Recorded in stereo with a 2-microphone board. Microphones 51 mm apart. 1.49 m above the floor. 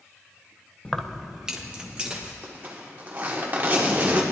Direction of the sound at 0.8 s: 20° left (ahead or behind).